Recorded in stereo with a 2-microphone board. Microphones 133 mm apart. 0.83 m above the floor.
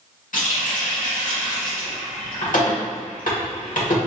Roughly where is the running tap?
Left.